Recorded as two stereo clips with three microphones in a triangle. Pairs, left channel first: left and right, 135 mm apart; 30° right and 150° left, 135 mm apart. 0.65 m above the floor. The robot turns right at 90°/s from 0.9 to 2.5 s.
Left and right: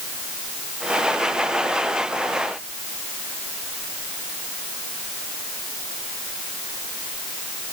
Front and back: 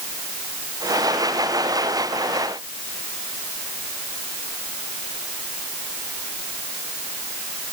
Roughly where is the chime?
I don't hear a chime.